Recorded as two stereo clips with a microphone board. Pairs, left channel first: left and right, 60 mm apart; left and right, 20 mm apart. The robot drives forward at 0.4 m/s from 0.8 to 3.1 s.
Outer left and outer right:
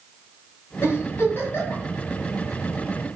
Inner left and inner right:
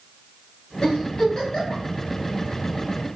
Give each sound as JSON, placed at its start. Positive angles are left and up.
{"t": 0.8, "sound": "a giggle", "side_deg": 45, "distance_m": 1.7}